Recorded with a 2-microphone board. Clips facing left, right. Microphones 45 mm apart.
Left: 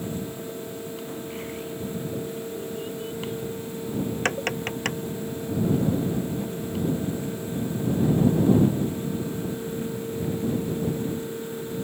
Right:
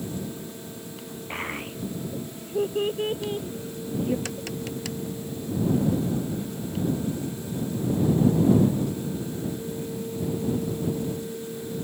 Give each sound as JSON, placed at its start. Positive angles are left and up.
{"t": 1.3, "sound": "a child speaking", "side_deg": -40}
{"t": 4.2, "sound": "tapping", "side_deg": 50}